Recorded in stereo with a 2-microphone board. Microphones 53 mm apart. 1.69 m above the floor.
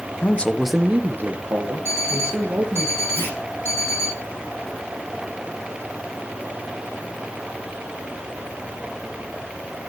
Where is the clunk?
45° left (ahead or behind), 6.5 m.